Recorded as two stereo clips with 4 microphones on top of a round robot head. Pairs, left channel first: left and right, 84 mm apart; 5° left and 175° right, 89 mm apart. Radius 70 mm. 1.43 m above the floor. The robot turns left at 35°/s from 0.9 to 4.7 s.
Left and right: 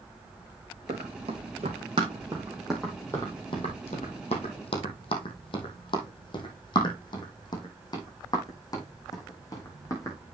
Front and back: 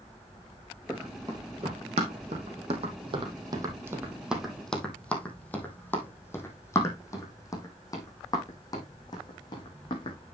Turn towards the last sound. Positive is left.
turn(degrees=40)